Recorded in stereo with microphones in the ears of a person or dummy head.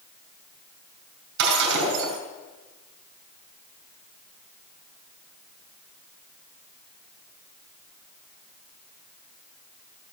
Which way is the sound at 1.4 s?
60° right (ahead or behind).